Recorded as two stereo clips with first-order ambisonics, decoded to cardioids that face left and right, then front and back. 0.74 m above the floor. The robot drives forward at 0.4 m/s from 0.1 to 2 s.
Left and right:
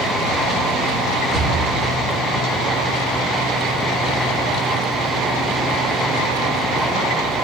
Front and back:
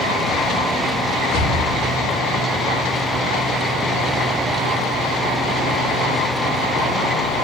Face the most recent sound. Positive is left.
turn(degrees=75)